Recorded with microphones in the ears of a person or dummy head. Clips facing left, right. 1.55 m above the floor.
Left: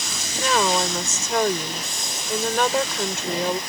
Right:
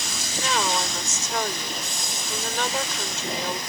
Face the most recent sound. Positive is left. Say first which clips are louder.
# left 5 dB
turn(degrees=50)  # may be behind; listen again after turning